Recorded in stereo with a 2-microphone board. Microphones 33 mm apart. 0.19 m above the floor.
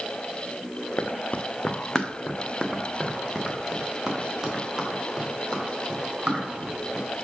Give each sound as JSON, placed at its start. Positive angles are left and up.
{"t": 1.0, "sound": "running footsteps", "side_deg": 70, "distance_m": 0.6}